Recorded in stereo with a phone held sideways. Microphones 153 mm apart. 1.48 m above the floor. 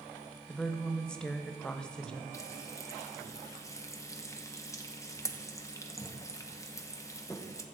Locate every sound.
0.5 s a woman speaking: 5° left (ahead or behind), 1.0 m
2.3 s frying: 20° left (ahead or behind), 0.8 m